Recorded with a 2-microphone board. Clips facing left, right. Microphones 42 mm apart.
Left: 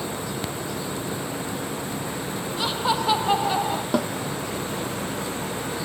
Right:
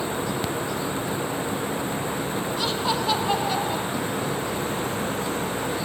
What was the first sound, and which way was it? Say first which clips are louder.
Laughter: left 3 dB; 15° left (ahead or behind).